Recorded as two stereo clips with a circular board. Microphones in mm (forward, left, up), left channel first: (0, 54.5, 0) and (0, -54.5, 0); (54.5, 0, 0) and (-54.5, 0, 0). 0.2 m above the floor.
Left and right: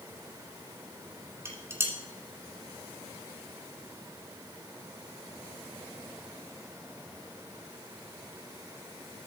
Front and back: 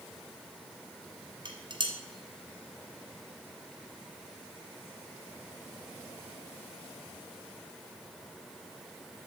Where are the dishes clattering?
150° right, 1.6 m.